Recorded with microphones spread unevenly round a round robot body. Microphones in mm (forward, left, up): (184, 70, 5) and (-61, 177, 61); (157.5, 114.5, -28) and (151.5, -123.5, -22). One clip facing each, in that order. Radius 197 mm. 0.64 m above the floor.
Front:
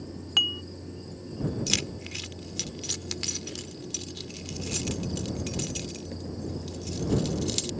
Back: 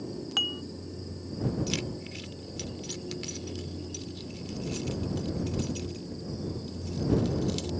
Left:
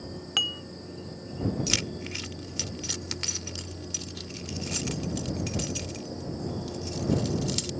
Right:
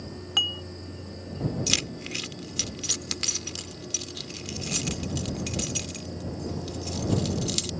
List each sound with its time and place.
0.4 s dishes clattering: 30° left
1.7 s keys jangling: 40° right